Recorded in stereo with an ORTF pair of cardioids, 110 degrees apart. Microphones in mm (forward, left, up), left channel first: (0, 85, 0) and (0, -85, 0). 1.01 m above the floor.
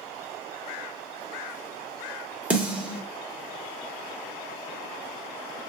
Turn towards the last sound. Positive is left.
turn(degrees=-10)